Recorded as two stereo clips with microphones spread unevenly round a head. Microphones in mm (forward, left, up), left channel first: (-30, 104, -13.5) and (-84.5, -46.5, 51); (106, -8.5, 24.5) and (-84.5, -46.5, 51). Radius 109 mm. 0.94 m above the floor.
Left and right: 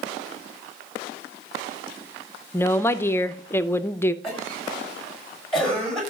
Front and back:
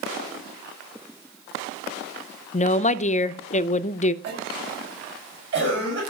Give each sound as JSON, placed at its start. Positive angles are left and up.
{"t": 2.5, "sound": "a woman speaking", "azimuth_deg": 30, "distance_m": 0.6}
{"t": 4.2, "sound": "a cough", "azimuth_deg": 155, "distance_m": 5.5}